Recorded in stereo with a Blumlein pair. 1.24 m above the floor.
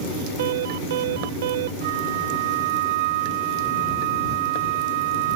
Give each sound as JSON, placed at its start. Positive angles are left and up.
{"t": 0.4, "sound": "an alarm", "azimuth_deg": -55}
{"t": 1.8, "sound": "a flute", "azimuth_deg": -50}